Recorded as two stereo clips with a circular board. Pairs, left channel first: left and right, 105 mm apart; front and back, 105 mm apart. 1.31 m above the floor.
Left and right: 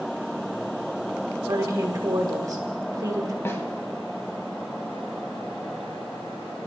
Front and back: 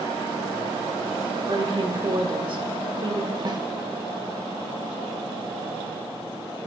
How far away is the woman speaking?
About 2 m.